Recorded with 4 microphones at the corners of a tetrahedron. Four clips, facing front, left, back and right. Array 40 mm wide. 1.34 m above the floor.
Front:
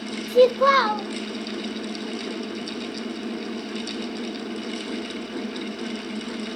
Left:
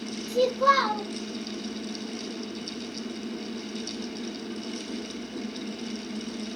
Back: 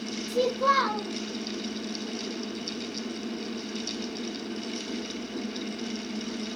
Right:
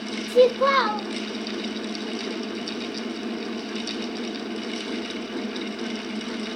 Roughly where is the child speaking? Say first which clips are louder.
Right 4 dB, front 8 dB; ahead right.